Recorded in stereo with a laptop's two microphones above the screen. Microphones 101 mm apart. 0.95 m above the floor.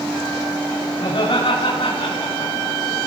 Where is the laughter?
55° left (ahead or behind), 7 m; by 2.7 s 50° left (ahead or behind), 6 m.